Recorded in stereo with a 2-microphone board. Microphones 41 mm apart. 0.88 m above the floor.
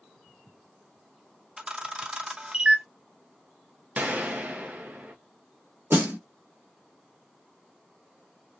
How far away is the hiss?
No hiss in this recording.